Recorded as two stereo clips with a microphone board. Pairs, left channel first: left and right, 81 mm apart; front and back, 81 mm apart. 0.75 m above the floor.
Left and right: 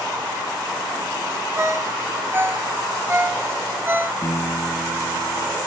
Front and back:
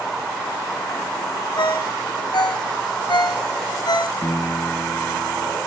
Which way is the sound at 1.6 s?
30° right.